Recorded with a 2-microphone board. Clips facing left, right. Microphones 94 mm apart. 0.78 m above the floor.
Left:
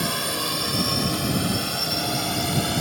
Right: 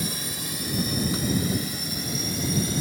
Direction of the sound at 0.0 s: 65° left (ahead or behind).